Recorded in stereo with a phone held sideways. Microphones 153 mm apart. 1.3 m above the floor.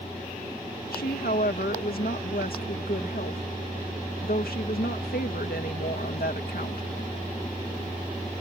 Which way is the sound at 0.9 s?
75° left (ahead or behind).